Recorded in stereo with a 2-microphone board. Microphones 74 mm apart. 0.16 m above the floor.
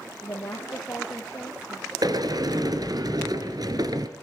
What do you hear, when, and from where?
0.2 s a woman speaking: 35° left (ahead or behind), 3.5 m
2.0 s a sliding door: 60° right (ahead or behind), 1.8 m